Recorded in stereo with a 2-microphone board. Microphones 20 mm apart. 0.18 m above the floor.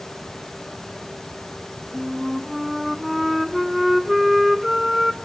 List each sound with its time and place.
1.9 s a flute: 5° right (ahead or behind), 0.7 m